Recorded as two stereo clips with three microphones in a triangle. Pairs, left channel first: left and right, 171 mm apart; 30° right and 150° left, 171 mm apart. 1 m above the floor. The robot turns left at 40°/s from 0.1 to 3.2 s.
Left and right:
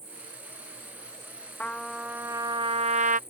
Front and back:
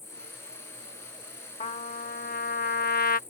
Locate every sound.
0.0 s an insect: 120° right; by 3.3 s 115° left
1.6 s a trumpet: 10° left; by 3.2 s 55° right